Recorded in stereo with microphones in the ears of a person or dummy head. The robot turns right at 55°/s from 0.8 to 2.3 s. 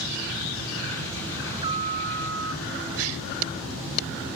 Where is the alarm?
165° right; by 2.9 s 115° right.